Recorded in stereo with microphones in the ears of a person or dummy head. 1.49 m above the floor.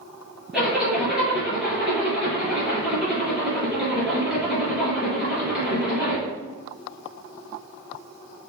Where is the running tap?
No running tap in this recording.